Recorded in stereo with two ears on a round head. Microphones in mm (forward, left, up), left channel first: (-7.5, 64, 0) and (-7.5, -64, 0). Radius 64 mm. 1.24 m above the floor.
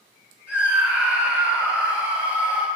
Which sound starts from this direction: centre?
A scream, at 0.5 s.